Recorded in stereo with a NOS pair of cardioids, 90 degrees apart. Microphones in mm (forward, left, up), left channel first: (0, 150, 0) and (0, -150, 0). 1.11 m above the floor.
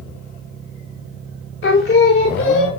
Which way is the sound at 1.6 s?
40° left.